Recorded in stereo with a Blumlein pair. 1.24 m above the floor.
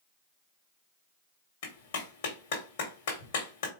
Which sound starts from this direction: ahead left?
A clap, at 1.6 s.